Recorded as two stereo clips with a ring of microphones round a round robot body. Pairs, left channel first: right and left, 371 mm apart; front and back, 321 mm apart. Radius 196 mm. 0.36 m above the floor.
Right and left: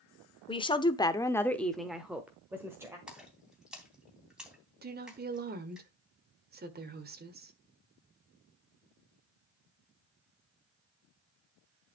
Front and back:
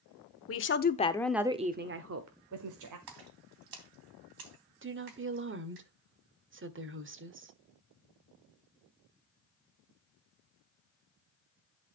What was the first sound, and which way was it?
A woman speaking, 20° right.